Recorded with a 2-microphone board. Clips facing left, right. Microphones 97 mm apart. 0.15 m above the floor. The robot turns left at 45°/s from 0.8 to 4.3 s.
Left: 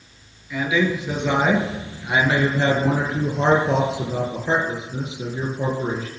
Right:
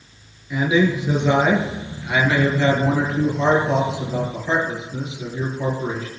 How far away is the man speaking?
About 3 m.